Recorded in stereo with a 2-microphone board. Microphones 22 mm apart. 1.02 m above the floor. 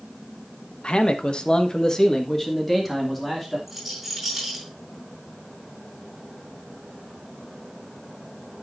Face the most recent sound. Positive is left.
turn(degrees=-15)  # may be behind; listen again after turning